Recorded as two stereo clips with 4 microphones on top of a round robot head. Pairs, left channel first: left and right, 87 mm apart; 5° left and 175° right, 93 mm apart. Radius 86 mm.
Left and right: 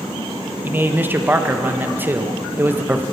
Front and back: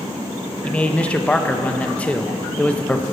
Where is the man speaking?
60° right, 1.0 m.